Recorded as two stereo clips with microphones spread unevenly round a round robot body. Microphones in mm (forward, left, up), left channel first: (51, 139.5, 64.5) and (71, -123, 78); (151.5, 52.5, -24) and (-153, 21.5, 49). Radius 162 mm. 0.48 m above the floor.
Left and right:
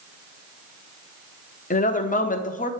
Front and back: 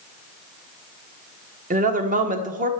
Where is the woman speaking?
115° left, 1.5 m.